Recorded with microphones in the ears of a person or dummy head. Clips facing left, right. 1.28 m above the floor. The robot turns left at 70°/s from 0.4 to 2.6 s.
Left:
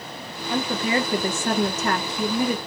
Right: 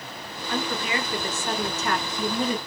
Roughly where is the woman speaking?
Behind.